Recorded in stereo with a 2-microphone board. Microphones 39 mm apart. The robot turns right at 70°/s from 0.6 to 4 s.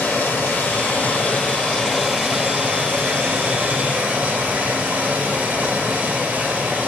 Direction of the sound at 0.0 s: 70° left.